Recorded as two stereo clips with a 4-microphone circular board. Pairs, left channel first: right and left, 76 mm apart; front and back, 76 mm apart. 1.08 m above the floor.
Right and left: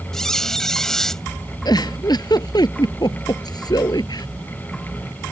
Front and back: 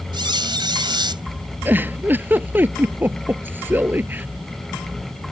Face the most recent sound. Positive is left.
turn(degrees=-115)